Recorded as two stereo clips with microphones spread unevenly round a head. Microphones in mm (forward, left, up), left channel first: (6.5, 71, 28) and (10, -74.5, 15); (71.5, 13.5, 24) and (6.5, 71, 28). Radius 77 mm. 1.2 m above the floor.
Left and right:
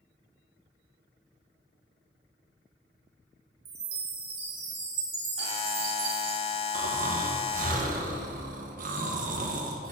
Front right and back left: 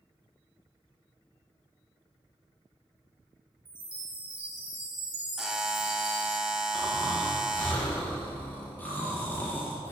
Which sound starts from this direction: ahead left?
A buzzer, at 5.4 s.